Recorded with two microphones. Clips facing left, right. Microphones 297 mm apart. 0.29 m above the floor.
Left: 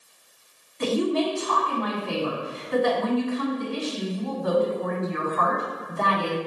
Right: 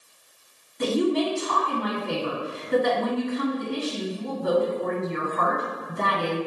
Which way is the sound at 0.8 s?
35° right (ahead or behind).